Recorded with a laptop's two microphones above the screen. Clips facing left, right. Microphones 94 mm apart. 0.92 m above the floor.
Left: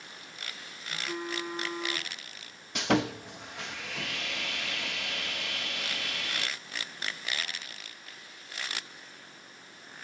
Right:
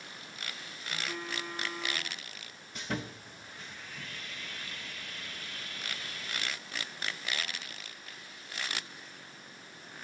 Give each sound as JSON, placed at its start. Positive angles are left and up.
{"t": 0.9, "sound": "a phone buzzing", "side_deg": 15, "distance_m": 5.0}
{"t": 2.8, "sound": "sawing", "side_deg": 75, "distance_m": 0.6}